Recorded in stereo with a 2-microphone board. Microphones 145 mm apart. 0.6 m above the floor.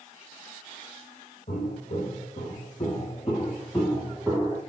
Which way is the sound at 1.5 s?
50° left (ahead or behind).